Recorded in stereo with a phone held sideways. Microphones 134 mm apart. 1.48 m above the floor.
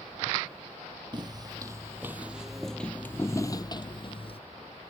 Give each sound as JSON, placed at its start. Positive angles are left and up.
{"t": 1.1, "sound": "footsteps", "side_deg": -35}